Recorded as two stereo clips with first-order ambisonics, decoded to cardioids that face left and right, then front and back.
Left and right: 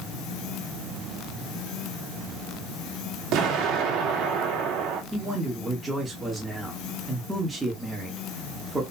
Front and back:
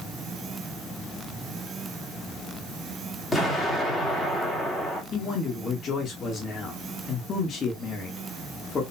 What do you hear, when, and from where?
3.3 s an explosion: 70° right, 1.5 m
5.1 s a man speaking: 25° right, 1.2 m